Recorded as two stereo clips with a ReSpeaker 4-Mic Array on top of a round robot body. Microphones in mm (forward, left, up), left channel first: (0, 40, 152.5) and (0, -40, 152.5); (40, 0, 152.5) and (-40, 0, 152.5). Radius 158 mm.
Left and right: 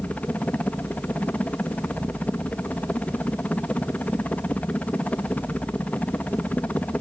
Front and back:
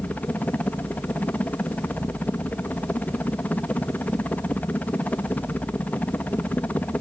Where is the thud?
I don't hear a thud.